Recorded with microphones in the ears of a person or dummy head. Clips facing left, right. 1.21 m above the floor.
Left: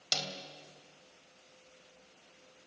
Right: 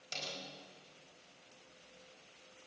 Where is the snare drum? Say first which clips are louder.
Left 6 dB; 85° left, 3.5 m.